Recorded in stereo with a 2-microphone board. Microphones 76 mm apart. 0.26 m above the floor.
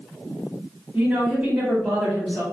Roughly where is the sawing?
I don't hear sawing.